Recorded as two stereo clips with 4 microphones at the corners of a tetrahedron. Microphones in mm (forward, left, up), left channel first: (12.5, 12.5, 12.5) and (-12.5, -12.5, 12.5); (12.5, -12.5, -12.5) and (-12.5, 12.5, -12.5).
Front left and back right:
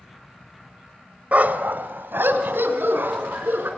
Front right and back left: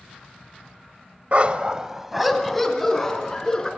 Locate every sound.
1.3 s a dog barking: 175° right, 1.1 m; by 3.7 s 115° right, 3.5 m